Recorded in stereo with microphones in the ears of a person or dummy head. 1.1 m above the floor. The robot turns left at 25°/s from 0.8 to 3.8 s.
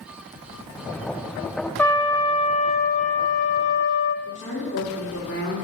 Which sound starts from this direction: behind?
A trumpet, at 1.8 s.